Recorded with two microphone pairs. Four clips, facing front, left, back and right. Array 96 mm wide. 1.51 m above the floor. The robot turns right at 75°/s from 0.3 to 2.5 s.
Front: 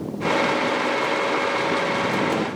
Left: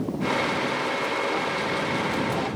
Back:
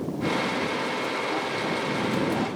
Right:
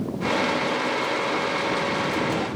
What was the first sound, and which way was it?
Only background noise.